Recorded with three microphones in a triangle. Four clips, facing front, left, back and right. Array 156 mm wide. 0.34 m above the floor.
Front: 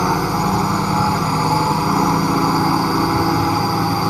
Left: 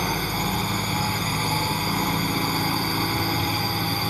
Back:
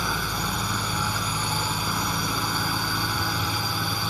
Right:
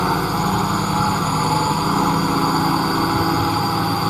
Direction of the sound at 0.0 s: 25° right.